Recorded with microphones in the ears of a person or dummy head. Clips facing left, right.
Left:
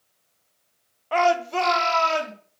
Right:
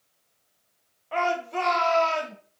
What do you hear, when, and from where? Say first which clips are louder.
1.1 s a shout: left 6 dB; 70° left (ahead or behind), 0.6 m; by 2.3 s 55° left (ahead or behind), 1.5 m